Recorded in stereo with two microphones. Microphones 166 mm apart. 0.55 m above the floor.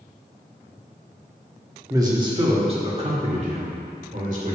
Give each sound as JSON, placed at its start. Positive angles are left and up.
{"t": 1.9, "sound": "a man speaking", "side_deg": -20, "distance_m": 1.3}